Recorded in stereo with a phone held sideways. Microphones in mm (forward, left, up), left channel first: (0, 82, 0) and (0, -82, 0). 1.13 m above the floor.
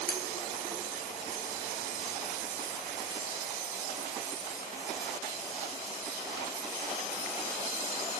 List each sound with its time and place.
0.1 s cutlery clinking: 70° left (ahead or behind), 1.7 m